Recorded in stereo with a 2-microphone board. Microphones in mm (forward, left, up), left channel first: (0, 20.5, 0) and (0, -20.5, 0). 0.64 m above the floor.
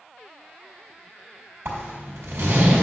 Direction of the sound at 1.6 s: 80° right.